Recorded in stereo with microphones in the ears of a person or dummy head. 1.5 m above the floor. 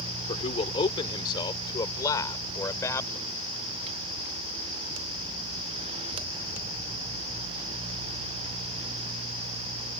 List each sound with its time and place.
0.3 s a man speaking: 35° left (ahead or behind); by 3.2 s 15° left (ahead or behind)